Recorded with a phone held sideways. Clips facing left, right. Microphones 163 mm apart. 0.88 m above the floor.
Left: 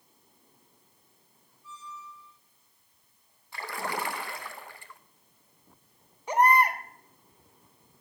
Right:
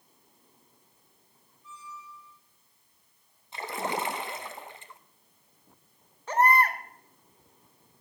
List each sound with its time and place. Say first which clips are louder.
1.6 s a squeak: left 1 dB; 70° right (ahead or behind), 8.5 m
3.5 s a splash: right 2 dB; 20° right (ahead or behind), 0.8 m
6.3 s a baby crying: left 1 dB; 15° left (ahead or behind), 1.3 m